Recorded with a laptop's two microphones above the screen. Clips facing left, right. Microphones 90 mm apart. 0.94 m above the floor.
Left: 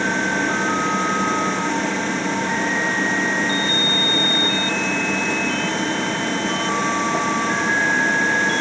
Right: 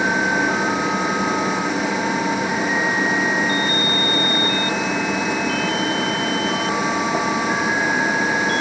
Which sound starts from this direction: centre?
A machine running, at 0.0 s.